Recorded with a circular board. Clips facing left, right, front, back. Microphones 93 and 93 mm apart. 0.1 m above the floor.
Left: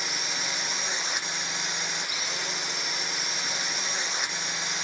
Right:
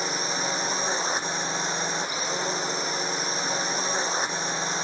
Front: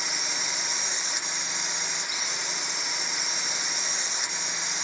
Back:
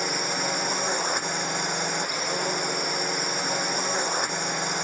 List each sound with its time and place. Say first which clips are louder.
0.0 s a drone: right 6 dB, back 7 dB; 145° right